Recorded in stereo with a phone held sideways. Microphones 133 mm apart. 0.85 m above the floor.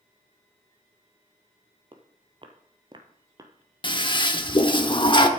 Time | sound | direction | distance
1.9 | footsteps | 40° right (ahead or behind) | 1.2 m
3.8 | a toilet flushing | 35° left (ahead or behind) | 0.9 m